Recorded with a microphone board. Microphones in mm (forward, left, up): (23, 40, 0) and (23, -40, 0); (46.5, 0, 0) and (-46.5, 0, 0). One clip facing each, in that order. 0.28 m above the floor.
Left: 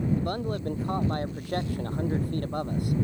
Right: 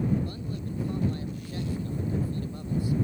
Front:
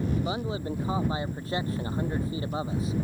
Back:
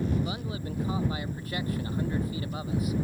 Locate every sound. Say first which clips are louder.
0.2 s a man speaking: left 4 dB, front 3 dB; 60° left